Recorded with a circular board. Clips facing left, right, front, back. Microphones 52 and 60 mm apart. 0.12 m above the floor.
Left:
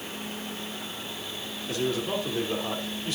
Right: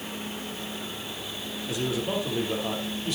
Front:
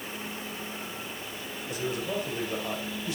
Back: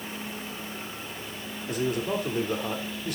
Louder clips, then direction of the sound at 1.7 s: Even, back 4 dB; 165° right.